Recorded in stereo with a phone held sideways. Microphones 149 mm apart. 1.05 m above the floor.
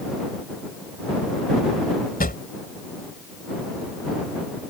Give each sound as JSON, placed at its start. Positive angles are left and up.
{"t": 2.2, "sound": "a drawer", "side_deg": 75}